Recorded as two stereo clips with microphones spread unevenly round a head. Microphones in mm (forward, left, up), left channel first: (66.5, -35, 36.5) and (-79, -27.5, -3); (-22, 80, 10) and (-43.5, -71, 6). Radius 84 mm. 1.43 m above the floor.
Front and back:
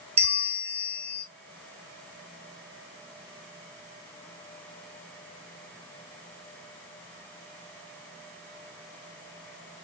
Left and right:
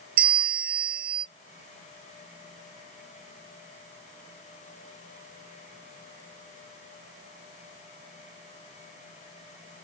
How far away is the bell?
About 1.0 m.